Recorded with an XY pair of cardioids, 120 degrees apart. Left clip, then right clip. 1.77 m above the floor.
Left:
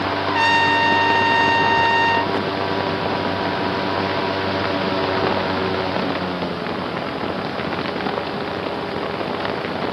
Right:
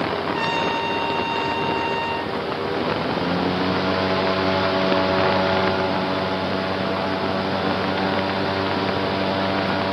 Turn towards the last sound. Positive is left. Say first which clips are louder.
# left 9 dB
turn(degrees=50)